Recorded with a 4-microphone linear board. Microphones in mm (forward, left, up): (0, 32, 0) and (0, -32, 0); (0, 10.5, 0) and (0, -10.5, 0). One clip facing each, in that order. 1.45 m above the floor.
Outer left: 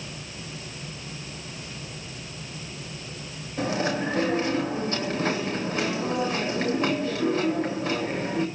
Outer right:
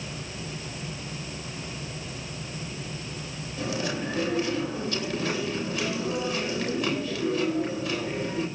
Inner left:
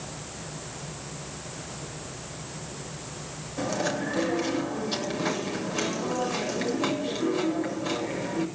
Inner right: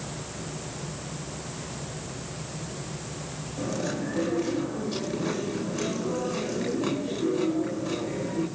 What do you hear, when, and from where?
3.6 s chewing: 35° left (ahead or behind), 8 m